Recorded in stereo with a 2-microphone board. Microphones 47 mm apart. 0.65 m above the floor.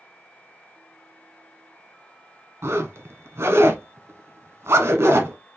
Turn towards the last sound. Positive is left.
turn(degrees=-65)  # may be behind; listen again after turning